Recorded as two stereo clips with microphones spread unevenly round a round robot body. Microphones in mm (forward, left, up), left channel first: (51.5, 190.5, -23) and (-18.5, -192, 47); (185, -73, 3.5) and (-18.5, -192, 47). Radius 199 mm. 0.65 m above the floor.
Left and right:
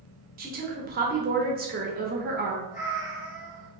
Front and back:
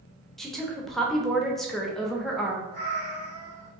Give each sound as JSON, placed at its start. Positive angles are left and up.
{"t": 0.4, "sound": "a woman speaking", "azimuth_deg": -35, "distance_m": 0.8}
{"t": 2.7, "sound": "a cat meowing", "azimuth_deg": 155, "distance_m": 1.2}